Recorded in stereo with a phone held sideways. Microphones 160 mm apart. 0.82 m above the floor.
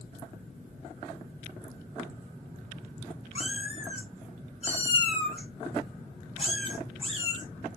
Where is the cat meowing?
40° left (ahead or behind), 6 m.